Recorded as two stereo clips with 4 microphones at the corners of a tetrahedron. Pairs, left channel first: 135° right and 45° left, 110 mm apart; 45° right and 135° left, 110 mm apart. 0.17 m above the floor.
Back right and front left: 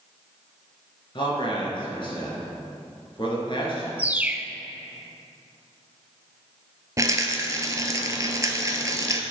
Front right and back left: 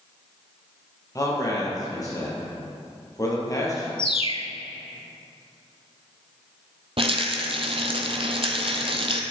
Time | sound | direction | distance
1.1 | a man speaking | 100° right | 3 m
4.0 | a bird | 30° right | 0.5 m
7.0 | a rattle | 105° left | 0.9 m